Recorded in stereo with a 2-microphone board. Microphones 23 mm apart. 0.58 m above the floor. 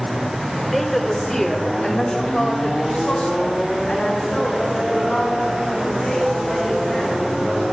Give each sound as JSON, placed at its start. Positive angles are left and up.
{"t": 0.7, "sound": "a woman speaking", "side_deg": 10, "distance_m": 1.9}